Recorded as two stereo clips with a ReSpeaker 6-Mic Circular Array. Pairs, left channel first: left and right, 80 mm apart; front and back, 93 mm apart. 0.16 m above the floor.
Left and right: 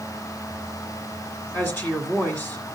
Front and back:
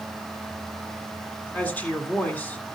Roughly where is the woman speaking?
Ahead left.